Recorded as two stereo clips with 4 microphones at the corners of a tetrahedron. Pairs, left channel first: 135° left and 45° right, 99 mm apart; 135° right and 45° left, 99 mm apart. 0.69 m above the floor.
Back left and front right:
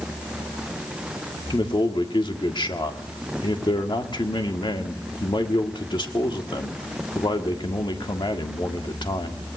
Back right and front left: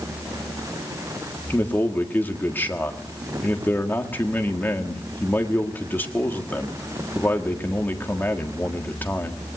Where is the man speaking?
160° left, 1.6 m.